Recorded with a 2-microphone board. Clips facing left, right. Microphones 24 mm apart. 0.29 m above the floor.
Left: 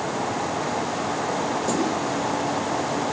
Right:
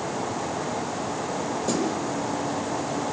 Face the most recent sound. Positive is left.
turn(degrees=-5)  # may be behind; listen again after turning